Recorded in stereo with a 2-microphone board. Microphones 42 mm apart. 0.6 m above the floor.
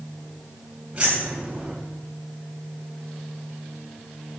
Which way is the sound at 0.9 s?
25° right (ahead or behind).